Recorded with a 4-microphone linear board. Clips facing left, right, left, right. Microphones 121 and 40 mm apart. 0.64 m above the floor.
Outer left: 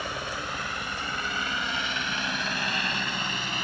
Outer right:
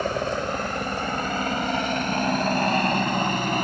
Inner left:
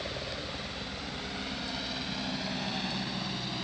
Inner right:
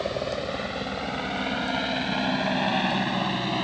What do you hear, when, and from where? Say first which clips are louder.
0.0 s a helicopter: outer right 9 dB, inner right 9 dB; 45° right (ahead or behind); by 3.6 s 50° right (ahead or behind)